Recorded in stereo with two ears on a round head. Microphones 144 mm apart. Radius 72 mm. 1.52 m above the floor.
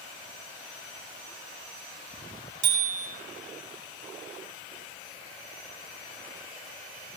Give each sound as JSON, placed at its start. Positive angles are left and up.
{"t": 2.6, "sound": "a bicycle bell", "side_deg": -85, "distance_m": 5.5}